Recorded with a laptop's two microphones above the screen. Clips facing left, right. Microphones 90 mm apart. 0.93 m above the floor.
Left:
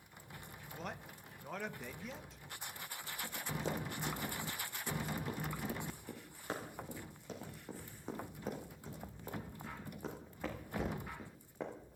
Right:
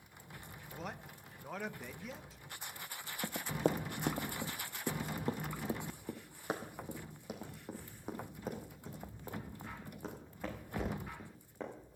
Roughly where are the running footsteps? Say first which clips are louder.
Right 7 dB; right.